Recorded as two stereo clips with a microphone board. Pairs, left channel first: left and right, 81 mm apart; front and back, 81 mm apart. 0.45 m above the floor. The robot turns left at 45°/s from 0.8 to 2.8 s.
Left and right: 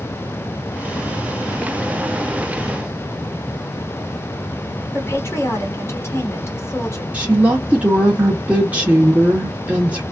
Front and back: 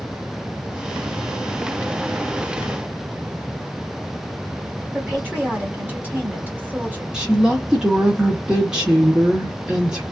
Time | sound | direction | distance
4.9 | a woman speaking | 125° left | 1.6 m
7.1 | a woman speaking | 115° right | 0.9 m